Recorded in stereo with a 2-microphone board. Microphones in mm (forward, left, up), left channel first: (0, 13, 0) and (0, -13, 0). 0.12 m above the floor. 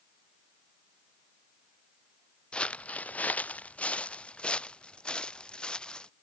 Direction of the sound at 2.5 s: 45° left (ahead or behind).